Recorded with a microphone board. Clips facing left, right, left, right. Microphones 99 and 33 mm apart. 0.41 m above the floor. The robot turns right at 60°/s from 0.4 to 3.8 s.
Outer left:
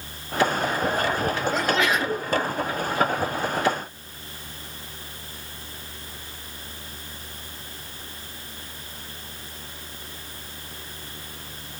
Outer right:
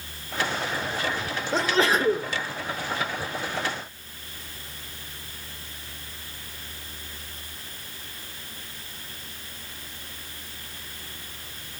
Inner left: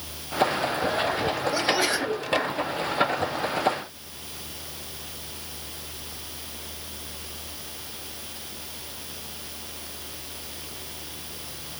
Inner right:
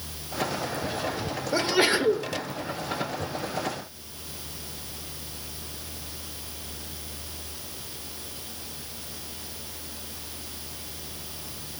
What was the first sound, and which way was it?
A sneeze, 125° right.